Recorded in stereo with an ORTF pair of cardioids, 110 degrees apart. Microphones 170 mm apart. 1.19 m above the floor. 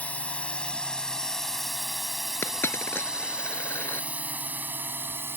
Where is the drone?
10° left; by 5.4 s 15° right.